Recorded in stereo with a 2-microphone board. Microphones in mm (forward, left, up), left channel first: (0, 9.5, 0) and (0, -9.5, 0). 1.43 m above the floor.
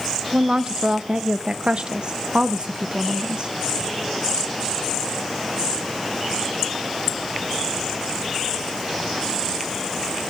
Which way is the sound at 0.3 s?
55° right (ahead or behind).